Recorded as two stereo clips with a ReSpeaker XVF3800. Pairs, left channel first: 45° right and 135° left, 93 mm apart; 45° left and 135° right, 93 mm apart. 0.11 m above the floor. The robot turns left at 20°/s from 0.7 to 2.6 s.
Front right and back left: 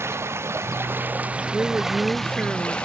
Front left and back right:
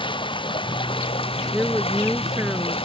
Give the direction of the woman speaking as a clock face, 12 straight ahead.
6 o'clock.